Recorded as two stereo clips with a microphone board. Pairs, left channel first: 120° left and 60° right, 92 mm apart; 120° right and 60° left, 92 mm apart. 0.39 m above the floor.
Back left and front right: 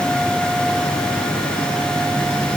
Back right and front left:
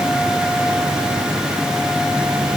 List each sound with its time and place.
Only background noise.